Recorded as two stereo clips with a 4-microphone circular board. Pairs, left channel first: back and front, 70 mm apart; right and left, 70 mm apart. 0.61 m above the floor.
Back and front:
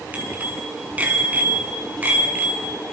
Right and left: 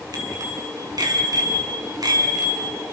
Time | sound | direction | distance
0.1 | a bicycle bell | 70° left | 5 m